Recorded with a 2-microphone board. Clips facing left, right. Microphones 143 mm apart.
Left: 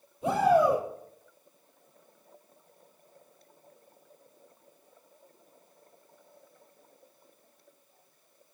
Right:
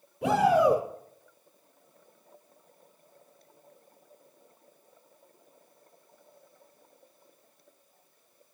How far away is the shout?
About 7 m.